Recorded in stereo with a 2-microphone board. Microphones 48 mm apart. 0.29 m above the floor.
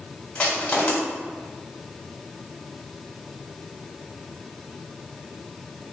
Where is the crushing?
20° left (ahead or behind), 2 m.